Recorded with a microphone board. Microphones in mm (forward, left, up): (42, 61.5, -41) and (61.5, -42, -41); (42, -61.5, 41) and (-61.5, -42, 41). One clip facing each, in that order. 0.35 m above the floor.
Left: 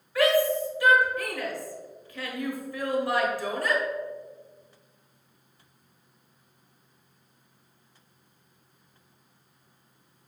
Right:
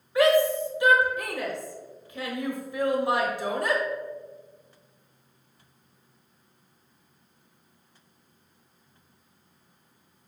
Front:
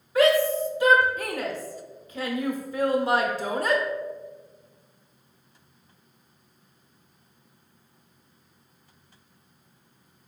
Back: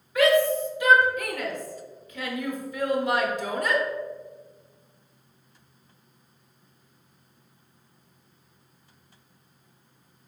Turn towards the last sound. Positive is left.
turn(degrees=-30)